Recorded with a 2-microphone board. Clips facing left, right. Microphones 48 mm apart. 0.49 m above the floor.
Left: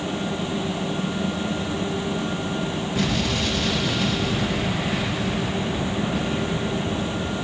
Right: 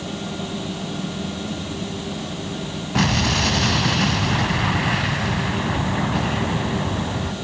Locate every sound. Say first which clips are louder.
3.0 s an explosion: right 5 dB; 80° right, 1.0 m